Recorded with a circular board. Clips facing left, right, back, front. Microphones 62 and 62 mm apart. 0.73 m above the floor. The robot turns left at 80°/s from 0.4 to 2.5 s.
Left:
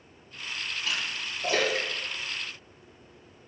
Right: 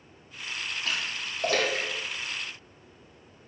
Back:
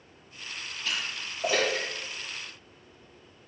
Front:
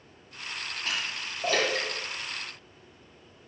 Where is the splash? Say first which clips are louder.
Even, even; 45° right, 5.5 m; by 2.8 s straight behind, 5.5 m.